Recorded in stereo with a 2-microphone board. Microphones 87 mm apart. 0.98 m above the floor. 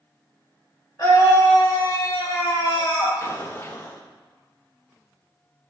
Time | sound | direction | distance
1.0 | a scream | 50° left (ahead or behind) | 1.8 m
3.2 | an explosion | 30° left (ahead or behind) | 0.6 m